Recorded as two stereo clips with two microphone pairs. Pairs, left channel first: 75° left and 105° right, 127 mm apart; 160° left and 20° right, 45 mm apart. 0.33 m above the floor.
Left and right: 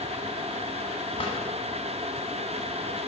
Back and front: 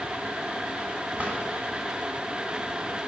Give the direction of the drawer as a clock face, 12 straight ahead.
11 o'clock.